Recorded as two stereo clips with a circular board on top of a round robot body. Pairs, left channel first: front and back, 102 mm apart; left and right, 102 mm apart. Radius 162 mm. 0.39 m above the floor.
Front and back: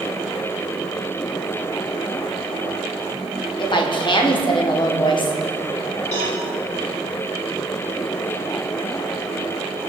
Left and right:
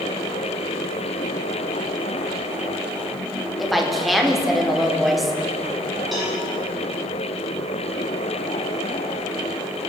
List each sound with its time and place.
3.6 s a woman speaking: straight ahead, 1.6 m
6.1 s a cowbell: straight ahead, 3 m